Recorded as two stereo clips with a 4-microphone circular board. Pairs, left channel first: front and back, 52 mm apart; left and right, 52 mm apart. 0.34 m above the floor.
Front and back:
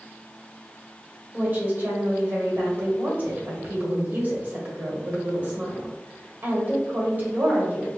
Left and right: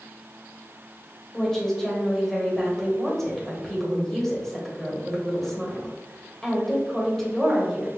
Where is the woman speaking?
170° left, 1.5 m.